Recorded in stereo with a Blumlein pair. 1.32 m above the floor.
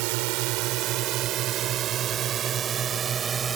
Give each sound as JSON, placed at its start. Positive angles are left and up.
{"t": 0.0, "sound": "a drone", "azimuth_deg": -45}